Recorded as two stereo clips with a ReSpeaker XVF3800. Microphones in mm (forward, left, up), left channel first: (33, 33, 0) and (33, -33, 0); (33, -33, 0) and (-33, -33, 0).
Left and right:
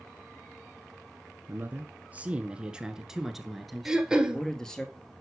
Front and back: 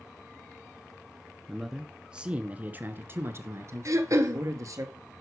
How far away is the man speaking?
About 1.2 m.